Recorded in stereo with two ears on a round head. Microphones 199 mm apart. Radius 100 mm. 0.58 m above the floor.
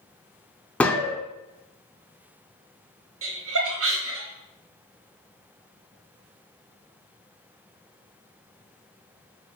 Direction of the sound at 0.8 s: 5° left (ahead or behind).